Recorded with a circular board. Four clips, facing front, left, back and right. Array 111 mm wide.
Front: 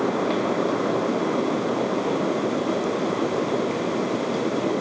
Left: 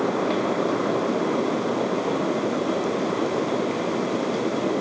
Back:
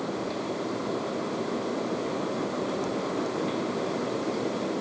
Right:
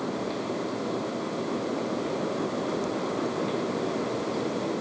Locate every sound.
Only background noise.